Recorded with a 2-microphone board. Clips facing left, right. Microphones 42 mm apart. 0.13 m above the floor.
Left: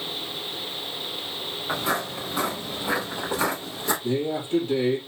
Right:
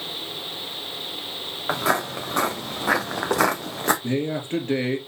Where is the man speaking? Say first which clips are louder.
Even; 55° right (ahead or behind), 2.5 m.